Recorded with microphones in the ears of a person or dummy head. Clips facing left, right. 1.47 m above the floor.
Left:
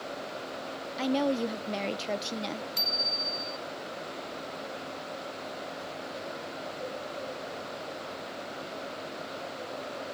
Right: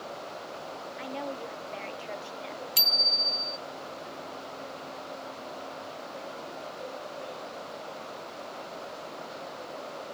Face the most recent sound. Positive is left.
turn(degrees=-45)  # may be behind; listen again after turning